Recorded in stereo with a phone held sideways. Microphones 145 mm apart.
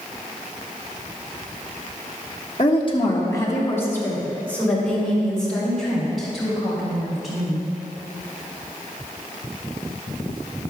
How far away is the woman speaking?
About 1.5 m.